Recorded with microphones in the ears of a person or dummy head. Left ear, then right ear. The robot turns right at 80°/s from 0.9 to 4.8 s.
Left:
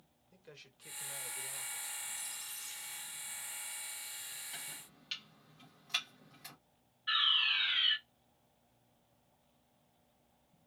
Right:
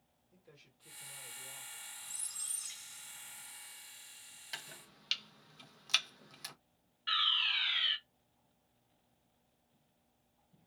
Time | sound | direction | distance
0.3 | a man speaking | 85° left | 0.9 m
2.0 | a squeak | 90° right | 0.9 m
4.5 | chopping | 55° right (ahead or behind) | 0.6 m
7.1 | a fire alarm | 30° right (ahead or behind) | 1.1 m